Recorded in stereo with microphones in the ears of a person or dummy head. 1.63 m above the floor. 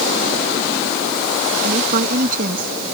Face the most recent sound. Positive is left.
turn(degrees=-55)  # may be behind; listen again after turning